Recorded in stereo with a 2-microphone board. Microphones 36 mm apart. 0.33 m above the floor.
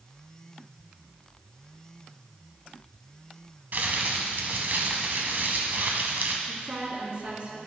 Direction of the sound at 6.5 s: 45° right (ahead or behind).